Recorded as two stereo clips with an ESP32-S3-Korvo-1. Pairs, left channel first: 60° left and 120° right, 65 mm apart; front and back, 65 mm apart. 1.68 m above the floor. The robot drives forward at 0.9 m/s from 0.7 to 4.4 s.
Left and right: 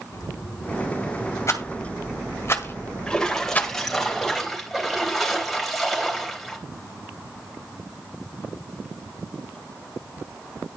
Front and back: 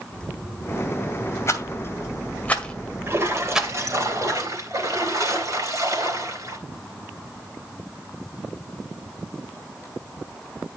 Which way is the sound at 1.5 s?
35° left.